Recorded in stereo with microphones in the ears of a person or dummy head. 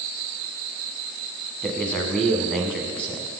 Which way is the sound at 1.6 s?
5° left (ahead or behind).